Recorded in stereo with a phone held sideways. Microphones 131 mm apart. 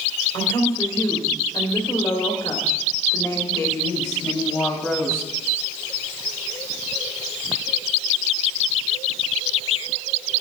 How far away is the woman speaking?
About 5 m.